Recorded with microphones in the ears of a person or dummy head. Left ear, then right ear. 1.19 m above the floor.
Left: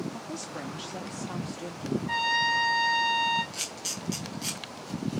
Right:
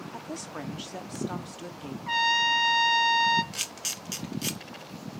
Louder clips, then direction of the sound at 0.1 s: Even; 30° right (ahead or behind).